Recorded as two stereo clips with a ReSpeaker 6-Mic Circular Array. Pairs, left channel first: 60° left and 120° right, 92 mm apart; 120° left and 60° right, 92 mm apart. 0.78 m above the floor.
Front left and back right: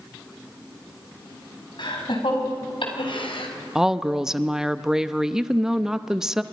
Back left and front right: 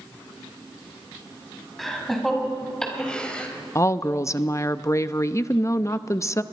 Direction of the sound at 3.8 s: 160° left.